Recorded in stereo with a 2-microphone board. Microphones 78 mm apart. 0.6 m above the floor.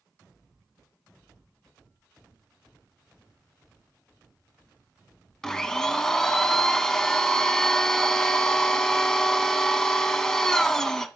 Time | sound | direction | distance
5.4 | a blender | 5° left (ahead or behind) | 0.8 m